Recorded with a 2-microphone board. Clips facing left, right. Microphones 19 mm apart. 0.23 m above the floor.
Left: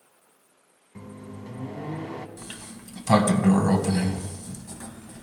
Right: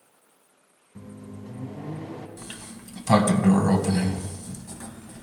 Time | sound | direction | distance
0.9 | a microwave | 45° left (ahead or behind) | 1.8 m
2.4 | a sliding door | 5° left (ahead or behind) | 1.6 m